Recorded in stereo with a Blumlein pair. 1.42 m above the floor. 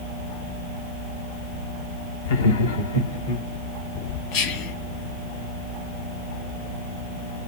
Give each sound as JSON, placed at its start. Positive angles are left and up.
{"t": 2.2, "sound": "laughter", "azimuth_deg": 55, "distance_m": 0.9}
{"t": 4.3, "sound": "whispering", "azimuth_deg": 45, "distance_m": 2.0}